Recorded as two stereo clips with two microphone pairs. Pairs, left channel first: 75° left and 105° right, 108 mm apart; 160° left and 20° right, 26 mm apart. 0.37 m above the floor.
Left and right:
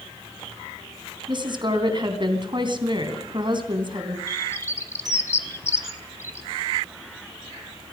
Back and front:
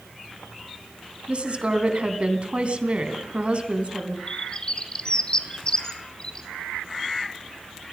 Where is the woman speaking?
65° right, 3.5 m.